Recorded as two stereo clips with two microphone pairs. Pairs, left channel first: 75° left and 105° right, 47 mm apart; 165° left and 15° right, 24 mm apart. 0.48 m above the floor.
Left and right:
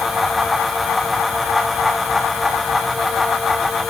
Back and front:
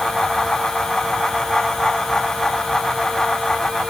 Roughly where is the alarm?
I don't hear an alarm.